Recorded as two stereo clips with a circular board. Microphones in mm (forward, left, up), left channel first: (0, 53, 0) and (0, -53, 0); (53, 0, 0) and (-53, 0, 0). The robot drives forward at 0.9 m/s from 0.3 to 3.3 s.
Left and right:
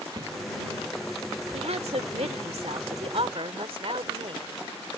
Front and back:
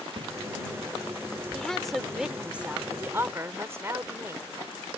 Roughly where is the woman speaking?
Right.